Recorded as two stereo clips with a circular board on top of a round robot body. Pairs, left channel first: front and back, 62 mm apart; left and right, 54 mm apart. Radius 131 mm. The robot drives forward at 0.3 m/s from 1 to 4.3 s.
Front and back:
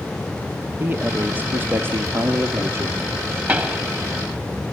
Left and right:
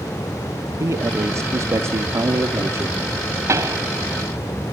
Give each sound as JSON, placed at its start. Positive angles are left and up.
{"t": 0.8, "sound": "a man speaking", "azimuth_deg": -120, "distance_m": 1.8}
{"t": 3.5, "sound": "a pop", "azimuth_deg": -120, "distance_m": 3.0}